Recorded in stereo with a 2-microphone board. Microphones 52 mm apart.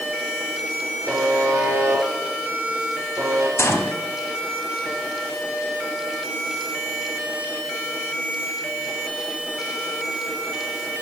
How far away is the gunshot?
About 1.1 m.